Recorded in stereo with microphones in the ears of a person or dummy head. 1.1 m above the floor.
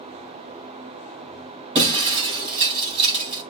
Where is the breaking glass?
30° right (ahead or behind), 4 m.